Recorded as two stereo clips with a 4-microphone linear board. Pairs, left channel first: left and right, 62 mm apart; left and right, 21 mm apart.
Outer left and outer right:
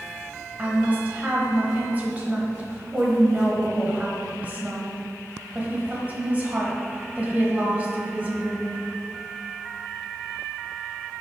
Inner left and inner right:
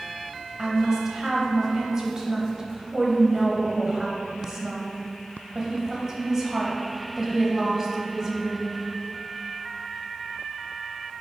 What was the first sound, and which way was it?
A woman speaking, 25° right (ahead or behind).